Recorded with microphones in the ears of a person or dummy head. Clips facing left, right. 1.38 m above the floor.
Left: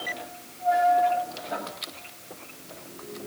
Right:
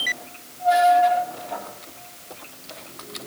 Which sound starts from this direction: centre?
Writing, at 1.5 s.